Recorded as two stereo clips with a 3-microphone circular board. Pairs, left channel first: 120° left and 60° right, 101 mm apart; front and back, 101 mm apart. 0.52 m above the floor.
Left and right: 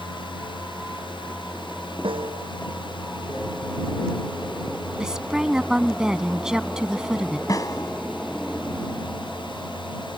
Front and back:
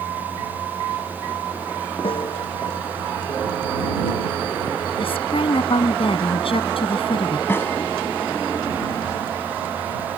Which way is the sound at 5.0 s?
25° left.